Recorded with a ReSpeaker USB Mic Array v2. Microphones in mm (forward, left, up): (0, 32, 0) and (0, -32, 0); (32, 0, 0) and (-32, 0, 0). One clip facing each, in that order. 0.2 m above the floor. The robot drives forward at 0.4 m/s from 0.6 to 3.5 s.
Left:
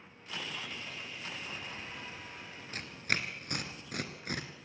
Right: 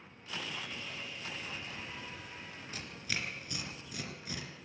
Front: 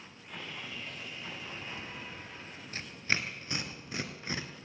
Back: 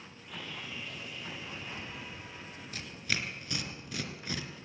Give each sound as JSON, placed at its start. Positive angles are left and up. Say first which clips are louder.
{"t": 0.3, "sound": "sawing", "louder": "even, even", "azimuth_deg": 40, "distance_m": 8.0}
{"t": 2.7, "sound": "tearing paper", "louder": "left 5 dB, front 3 dB", "azimuth_deg": 50, "distance_m": 2.0}